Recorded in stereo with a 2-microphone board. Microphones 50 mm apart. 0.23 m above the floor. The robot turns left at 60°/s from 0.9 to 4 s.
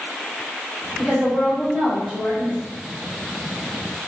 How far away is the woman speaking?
About 1.5 m.